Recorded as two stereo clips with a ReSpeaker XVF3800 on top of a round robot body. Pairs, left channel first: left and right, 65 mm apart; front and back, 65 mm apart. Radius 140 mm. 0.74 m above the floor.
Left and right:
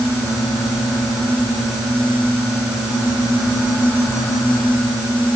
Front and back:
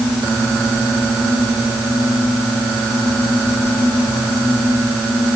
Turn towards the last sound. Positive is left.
No sound to turn to.